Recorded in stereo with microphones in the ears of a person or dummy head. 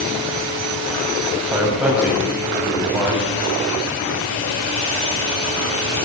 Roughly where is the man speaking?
Centre.